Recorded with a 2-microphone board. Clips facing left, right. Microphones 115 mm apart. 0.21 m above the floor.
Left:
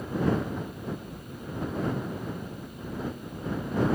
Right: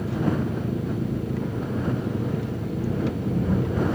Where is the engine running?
80° right.